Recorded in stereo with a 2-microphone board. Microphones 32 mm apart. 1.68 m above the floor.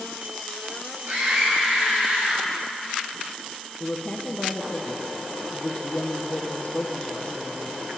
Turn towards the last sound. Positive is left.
turn(degrees=45)  # may be behind; listen again after turning